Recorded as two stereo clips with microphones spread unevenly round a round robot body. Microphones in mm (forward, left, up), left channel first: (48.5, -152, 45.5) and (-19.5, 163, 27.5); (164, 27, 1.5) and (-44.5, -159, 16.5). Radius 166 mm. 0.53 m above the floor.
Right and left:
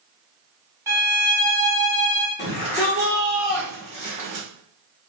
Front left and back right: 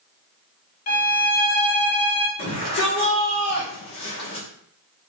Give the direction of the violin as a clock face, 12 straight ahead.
11 o'clock.